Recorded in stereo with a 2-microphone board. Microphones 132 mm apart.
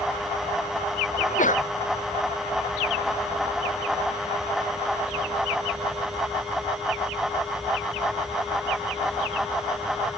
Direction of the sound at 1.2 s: 75° left (ahead or behind).